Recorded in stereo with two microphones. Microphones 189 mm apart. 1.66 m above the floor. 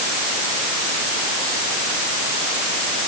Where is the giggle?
I don't hear a giggle.